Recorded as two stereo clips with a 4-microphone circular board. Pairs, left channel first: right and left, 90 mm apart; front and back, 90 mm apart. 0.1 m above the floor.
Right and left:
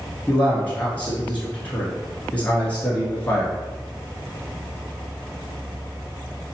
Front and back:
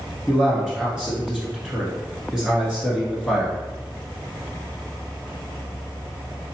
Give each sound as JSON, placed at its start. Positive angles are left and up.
{"t": 0.3, "sound": "a man speaking", "azimuth_deg": -120, "distance_m": 1.2}